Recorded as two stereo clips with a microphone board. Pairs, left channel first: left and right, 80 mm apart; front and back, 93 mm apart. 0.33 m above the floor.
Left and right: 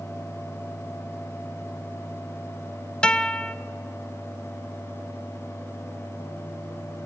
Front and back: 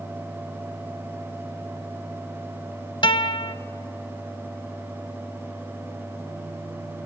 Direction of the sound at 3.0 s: 10° left.